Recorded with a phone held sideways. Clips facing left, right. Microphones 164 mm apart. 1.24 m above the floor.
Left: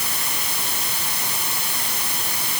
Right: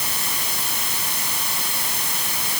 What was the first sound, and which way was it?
Only background noise.